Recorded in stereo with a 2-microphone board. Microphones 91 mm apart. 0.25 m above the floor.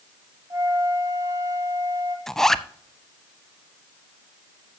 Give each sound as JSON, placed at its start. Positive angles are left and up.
{"t": 0.5, "sound": "a flute", "side_deg": -40, "distance_m": 1.5}
{"t": 2.3, "sound": "a zipper", "side_deg": 5, "distance_m": 0.5}